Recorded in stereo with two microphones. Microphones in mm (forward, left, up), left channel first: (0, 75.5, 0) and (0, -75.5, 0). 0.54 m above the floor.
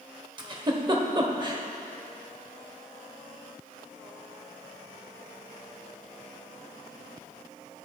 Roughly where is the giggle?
Right.